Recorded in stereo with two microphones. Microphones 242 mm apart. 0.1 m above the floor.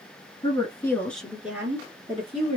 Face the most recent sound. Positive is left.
turn(degrees=-30)  # may be behind; listen again after turning